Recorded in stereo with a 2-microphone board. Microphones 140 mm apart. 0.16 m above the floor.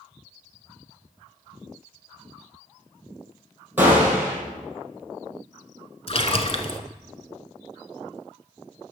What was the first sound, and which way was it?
A gunshot, 15° right (ahead or behind).